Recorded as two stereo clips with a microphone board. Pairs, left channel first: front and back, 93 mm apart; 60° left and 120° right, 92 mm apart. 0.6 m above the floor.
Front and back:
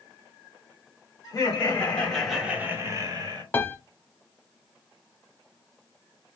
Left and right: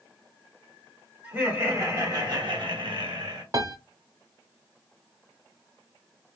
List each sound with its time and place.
1.2 s laughter: 50° right, 1.9 m; by 3.4 s 155° right, 1.7 m
3.5 s a piano: 70° right, 0.6 m